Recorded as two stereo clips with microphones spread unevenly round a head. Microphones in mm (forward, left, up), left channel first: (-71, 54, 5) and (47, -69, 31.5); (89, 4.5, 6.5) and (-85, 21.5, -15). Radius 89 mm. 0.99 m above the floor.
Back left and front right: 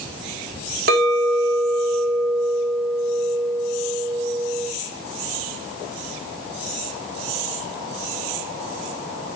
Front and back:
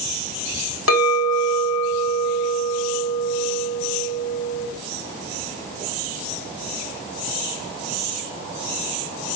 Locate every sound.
0.9 s a clink: 10° right, 3 m